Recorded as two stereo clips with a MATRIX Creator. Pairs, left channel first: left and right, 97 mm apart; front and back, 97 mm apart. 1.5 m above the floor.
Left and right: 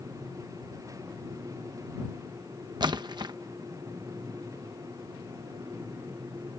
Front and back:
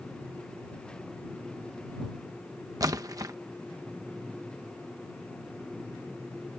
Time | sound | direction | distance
2.8 | a splash | 130° right | ?